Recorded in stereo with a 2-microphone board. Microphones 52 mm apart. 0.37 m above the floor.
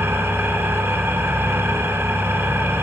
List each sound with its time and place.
0.0 s an engine running: 55° right (ahead or behind), 0.7 m